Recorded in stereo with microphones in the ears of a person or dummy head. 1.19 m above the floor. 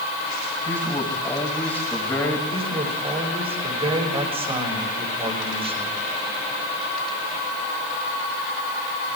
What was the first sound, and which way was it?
A man speaking, 15° left (ahead or behind).